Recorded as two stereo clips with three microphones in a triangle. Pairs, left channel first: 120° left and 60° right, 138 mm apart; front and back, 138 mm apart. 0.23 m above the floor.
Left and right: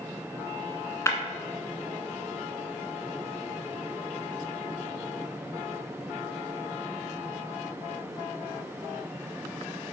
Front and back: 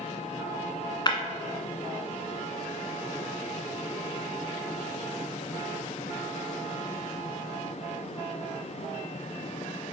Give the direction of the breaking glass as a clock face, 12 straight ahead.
10 o'clock.